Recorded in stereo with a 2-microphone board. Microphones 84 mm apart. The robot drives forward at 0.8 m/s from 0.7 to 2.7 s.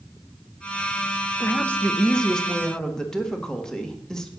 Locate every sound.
1.4 s a woman speaking: 15° left (ahead or behind), 0.8 m; by 4.3 s 5° left (ahead or behind), 1.8 m